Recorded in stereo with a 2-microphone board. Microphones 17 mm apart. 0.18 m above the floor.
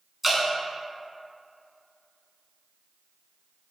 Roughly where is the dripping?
Centre.